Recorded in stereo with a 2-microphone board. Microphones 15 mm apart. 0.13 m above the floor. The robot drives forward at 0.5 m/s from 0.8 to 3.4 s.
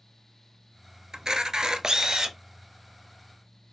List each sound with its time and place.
1.1 s a camera shutter: 50° right (ahead or behind), 0.6 m; by 2.4 s 45° right (ahead or behind), 0.7 m